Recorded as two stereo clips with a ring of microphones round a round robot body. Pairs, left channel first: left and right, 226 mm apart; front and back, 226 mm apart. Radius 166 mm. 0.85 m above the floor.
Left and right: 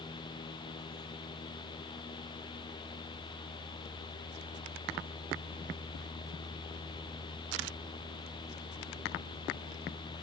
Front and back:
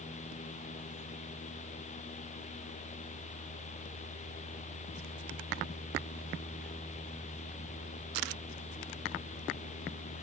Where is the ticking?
No ticking in this recording.